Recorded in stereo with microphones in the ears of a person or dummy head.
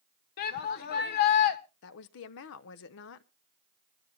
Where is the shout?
55° left (ahead or behind), 1.1 m.